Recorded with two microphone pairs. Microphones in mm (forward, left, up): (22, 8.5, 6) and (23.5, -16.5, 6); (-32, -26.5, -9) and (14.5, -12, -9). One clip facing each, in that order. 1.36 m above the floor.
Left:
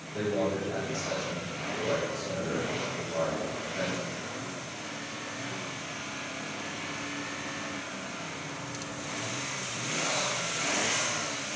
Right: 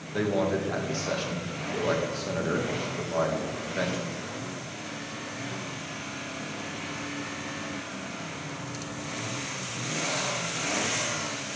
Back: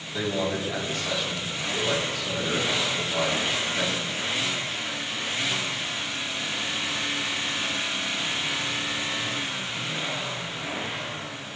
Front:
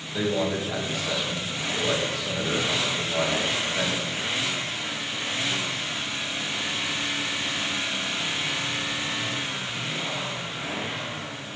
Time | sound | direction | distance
0.1 | a man speaking | 60° right | 1.9 m